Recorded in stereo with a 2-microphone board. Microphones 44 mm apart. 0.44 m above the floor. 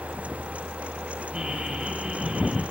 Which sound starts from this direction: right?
Laughter, at 1.3 s.